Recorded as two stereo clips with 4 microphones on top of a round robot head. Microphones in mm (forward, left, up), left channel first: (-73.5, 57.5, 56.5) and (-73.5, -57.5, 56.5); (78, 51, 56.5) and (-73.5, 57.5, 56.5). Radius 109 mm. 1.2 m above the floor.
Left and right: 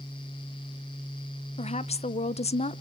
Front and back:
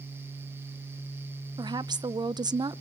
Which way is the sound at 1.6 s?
115° left.